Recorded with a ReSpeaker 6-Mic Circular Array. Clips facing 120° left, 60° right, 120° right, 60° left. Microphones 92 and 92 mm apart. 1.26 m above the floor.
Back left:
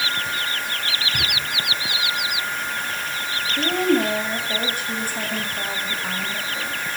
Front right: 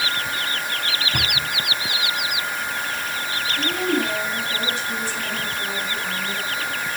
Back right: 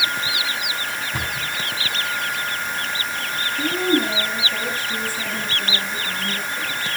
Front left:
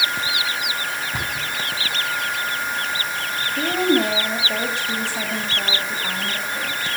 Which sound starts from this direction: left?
A woman speaking, at 3.6 s.